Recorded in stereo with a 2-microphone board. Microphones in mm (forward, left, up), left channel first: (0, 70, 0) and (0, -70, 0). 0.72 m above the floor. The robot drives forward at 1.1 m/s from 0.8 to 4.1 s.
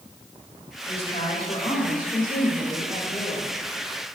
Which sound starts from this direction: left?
A woman speaking, at 0.9 s.